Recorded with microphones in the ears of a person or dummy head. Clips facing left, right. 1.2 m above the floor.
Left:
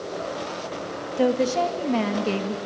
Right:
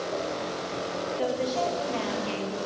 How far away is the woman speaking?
About 1.9 m.